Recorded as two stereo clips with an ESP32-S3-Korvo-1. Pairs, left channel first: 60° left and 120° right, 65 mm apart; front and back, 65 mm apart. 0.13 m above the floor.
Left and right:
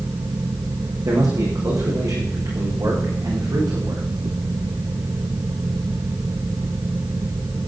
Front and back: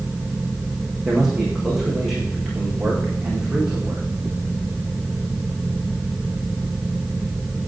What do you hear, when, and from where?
1.1 s a man speaking: 100° right, 7 m